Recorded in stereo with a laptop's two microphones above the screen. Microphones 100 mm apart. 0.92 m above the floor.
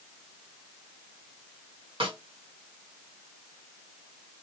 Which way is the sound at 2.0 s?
60° right (ahead or behind).